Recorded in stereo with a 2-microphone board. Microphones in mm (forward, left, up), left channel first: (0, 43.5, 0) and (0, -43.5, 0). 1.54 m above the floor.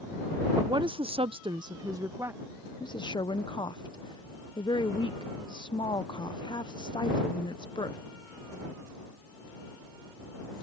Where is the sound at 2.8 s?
55° left (ahead or behind).